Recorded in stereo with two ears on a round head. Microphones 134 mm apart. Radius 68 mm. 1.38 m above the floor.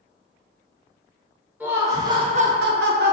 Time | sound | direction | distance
1.6 | laughter | 10° right (ahead or behind) | 1.2 m